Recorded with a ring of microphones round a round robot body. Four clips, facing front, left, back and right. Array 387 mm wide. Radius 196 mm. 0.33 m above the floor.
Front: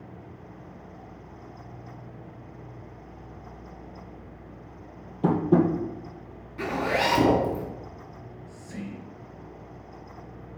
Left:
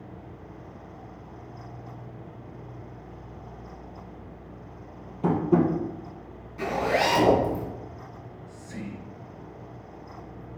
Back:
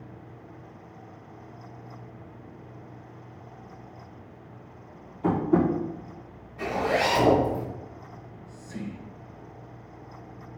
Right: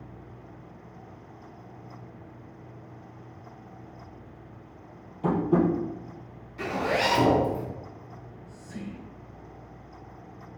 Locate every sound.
5.2 s tapping: 15° left, 2 m
6.6 s a zipper: 5° right, 3 m
8.1 s whispering: 35° left, 3 m